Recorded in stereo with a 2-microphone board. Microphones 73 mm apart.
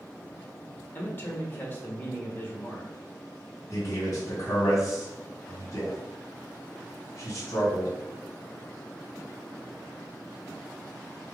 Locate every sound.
0.9 s a man speaking: 30° left (ahead or behind), 0.9 m
3.7 s a man speaking: 45° left (ahead or behind), 1.7 m